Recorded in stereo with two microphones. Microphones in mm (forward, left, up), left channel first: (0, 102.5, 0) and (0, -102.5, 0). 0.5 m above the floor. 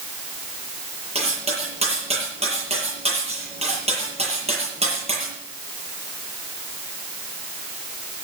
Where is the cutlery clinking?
30° right (ahead or behind), 8.5 m.